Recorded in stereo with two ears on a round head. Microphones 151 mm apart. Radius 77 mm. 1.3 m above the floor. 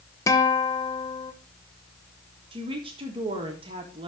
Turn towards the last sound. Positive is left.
turn(degrees=-30)  # may be behind; listen again after turning